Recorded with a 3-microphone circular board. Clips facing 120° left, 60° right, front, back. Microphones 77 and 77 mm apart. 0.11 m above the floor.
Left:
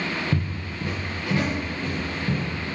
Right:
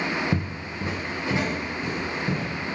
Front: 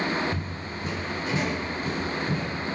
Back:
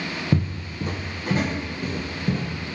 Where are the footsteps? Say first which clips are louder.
Even, back 7 dB; 130° right, 0.9 m.